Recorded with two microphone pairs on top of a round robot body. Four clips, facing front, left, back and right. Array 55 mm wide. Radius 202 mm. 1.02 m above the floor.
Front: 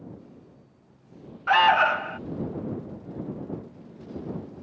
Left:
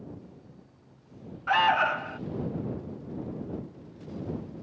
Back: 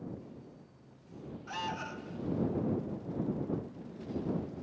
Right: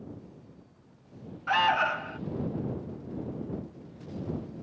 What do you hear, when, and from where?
1.5 s an alarm: 5° left